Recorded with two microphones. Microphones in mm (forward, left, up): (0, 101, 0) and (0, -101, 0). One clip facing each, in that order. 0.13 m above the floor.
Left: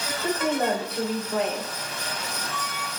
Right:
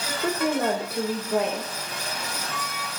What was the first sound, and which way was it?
A woman speaking, 55° right (ahead or behind).